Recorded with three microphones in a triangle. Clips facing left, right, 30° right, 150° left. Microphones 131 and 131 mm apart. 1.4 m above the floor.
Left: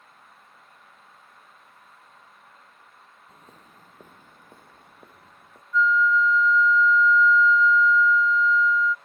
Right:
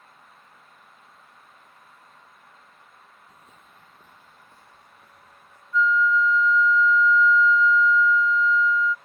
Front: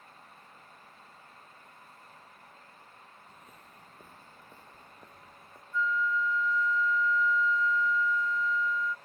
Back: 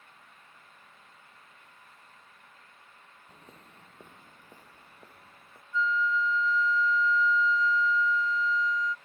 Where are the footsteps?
130° left; by 5.6 s 65° left.